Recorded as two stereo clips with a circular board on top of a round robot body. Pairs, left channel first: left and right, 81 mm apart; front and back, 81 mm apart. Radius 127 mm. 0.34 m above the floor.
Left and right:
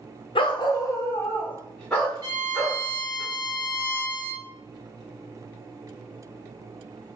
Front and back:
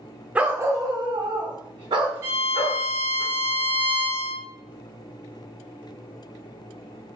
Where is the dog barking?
105° left, 0.6 m; by 3.2 s straight behind, 2 m.